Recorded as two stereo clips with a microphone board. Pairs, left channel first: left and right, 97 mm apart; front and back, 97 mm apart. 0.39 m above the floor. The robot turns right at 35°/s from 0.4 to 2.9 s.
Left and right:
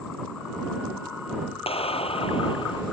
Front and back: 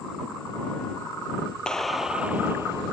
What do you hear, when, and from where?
1.7 s a clap: 80° left; by 2.8 s 125° left